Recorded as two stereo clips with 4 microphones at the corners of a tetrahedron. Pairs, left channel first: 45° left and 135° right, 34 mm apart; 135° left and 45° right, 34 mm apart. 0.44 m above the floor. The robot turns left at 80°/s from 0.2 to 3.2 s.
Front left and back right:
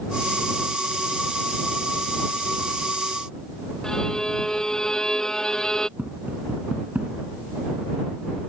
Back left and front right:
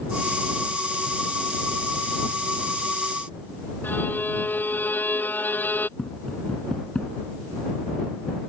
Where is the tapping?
165° right.